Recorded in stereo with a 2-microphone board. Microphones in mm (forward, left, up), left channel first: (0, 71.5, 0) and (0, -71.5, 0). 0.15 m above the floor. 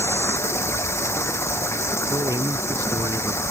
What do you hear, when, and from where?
0.0 s running water: 20° left (ahead or behind)
2.1 s a man speaking: 25° right (ahead or behind)